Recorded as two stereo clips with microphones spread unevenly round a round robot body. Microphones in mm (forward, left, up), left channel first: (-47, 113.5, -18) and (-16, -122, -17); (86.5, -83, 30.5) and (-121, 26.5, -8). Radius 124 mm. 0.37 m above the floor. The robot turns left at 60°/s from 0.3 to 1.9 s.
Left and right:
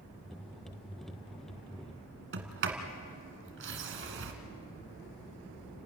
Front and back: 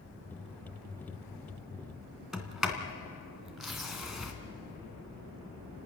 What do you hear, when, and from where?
2.3 s a sliding door: 120° right, 2.5 m